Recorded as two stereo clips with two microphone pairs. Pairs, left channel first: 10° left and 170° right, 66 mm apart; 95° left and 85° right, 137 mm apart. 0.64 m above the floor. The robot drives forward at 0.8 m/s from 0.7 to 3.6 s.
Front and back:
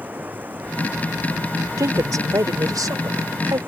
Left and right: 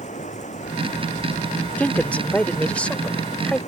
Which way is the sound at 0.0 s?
125° left.